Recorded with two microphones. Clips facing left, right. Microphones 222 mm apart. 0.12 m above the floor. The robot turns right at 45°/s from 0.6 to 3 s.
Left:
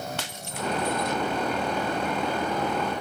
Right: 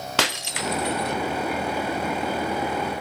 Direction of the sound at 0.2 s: 80° right.